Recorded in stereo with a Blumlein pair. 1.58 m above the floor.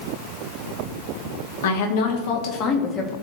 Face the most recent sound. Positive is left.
turn(degrees=15)